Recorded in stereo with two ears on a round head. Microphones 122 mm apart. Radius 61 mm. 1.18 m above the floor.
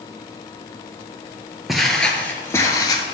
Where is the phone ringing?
No phone ringing in this recording.